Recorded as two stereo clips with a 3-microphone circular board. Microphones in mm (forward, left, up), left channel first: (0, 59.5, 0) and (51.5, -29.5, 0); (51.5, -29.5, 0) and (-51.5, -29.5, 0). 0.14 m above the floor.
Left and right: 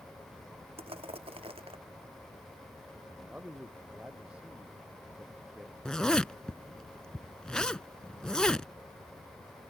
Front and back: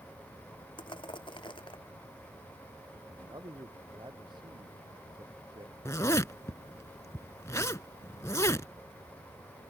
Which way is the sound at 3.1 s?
140° right.